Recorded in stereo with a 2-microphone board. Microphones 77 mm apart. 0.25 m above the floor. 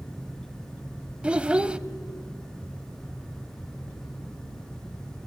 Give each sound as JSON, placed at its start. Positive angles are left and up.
{"t": 1.2, "sound": "a child speaking", "side_deg": -15, "distance_m": 0.6}